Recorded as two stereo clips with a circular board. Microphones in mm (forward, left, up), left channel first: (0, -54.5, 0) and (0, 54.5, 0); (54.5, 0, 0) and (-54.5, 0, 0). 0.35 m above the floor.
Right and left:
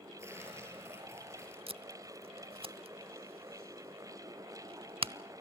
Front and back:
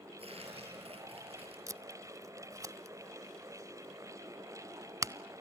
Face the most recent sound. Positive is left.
turn(degrees=120)